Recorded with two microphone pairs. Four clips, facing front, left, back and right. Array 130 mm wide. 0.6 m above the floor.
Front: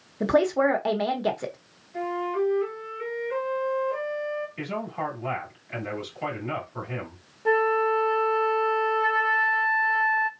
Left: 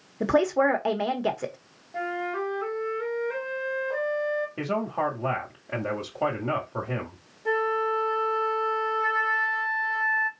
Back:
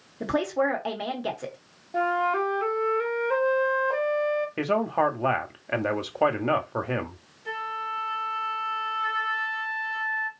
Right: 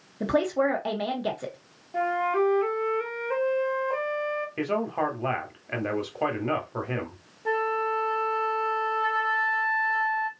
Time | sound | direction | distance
0.2 | a woman speaking | 50° left | 1.1 m
1.9 | a flute | 160° right | 0.9 m
4.6 | a man speaking | 175° right | 1.2 m
7.5 | a flute | 20° right | 0.7 m